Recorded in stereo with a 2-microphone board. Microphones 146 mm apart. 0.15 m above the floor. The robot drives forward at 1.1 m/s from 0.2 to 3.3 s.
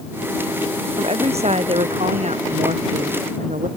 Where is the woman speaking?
45° right (ahead or behind); by 3.7 s 55° right (ahead or behind).